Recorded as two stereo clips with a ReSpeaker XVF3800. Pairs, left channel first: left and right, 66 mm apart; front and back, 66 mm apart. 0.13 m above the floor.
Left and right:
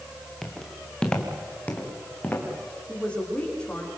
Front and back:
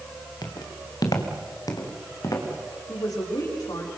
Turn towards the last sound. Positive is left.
turn(degrees=15)